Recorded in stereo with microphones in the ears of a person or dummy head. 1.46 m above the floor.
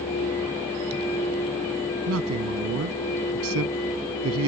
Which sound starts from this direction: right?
A man speaking, at 2.1 s.